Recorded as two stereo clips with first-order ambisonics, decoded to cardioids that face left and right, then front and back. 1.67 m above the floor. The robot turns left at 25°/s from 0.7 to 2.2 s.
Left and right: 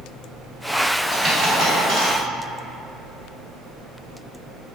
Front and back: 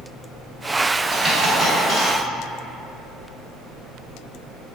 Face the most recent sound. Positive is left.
turn(degrees=-95)